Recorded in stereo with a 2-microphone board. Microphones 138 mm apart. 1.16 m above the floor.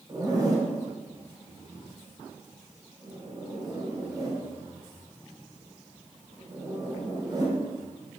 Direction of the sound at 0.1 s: 25° right (ahead or behind).